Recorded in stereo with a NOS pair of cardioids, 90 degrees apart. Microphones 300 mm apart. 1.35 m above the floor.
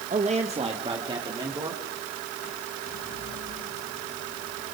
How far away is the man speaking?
About 1.7 m.